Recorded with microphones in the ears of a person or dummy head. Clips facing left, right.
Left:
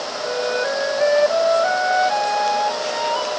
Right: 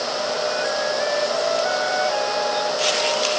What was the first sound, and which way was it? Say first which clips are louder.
A flute: left 5 dB; 80° left.